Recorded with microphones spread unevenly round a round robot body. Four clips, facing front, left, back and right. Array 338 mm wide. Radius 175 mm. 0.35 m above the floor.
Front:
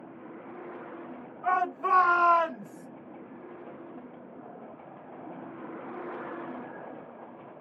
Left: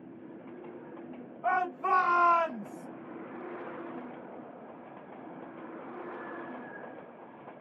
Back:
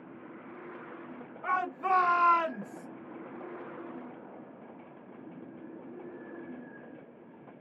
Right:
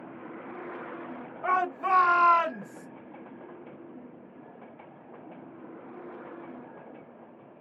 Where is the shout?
115° right, 2.5 m; by 2.9 s 110° right, 1.1 m.